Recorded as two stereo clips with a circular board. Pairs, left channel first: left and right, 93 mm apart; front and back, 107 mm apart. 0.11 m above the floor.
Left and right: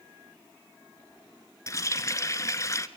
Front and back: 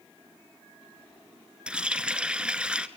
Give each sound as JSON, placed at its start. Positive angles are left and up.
{"t": 1.7, "sound": "a running tap", "azimuth_deg": 105, "distance_m": 0.9}